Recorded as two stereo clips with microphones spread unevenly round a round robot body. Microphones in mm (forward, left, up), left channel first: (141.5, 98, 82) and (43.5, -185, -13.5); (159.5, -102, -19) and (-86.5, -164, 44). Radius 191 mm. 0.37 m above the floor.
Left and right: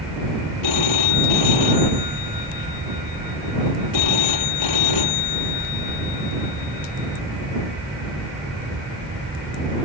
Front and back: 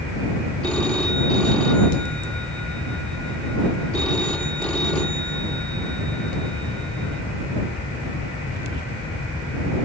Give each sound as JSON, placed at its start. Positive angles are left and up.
{"t": 0.6, "sound": "a phone ringing", "azimuth_deg": 100}